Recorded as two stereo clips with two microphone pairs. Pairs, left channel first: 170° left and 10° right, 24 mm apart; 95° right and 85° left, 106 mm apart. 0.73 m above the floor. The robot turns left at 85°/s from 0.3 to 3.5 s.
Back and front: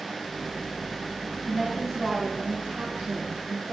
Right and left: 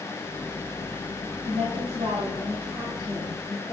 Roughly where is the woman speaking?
Left.